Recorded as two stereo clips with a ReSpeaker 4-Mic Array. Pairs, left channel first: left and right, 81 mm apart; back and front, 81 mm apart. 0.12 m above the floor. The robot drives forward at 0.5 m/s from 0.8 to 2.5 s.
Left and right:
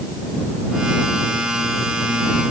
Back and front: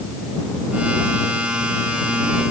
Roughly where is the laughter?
No laughter in this recording.